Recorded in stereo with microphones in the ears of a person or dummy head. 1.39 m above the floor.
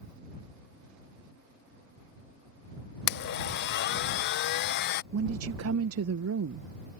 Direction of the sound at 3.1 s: 65° left (ahead or behind).